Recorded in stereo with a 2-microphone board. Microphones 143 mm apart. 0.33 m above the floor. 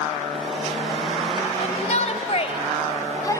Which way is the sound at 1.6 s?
50° left (ahead or behind).